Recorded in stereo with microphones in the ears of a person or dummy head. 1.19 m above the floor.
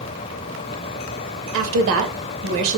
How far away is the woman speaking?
About 0.9 m.